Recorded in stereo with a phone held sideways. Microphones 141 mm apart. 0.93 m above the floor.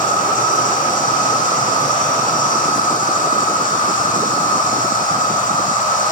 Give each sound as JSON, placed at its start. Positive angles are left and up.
{"t": 0.0, "sound": "an insect", "side_deg": 80, "distance_m": 4.5}